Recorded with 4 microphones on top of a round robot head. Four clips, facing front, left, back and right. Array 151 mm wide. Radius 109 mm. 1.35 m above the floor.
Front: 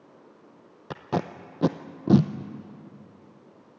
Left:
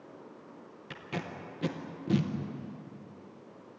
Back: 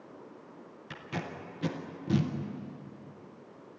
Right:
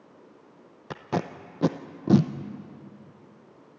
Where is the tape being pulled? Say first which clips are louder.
Right 9 dB, front 10 dB; 40° right, 0.6 m.